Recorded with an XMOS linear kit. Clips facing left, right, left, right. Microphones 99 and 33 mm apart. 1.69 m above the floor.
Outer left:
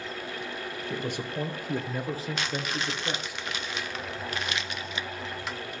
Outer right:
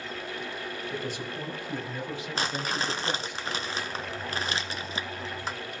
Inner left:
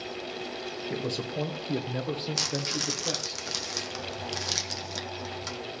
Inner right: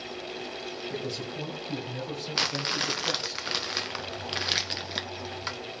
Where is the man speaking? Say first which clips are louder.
Outer left 4 dB, inner left 4 dB; 60° left (ahead or behind), 2 m; by 3.4 s 5° left (ahead or behind), 1.5 m.